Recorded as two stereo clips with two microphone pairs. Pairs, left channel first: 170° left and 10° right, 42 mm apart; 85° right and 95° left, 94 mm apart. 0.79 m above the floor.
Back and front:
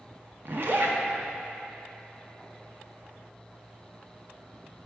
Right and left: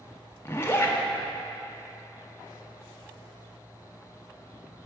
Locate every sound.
0.5 s a zipper: 25° right, 0.5 m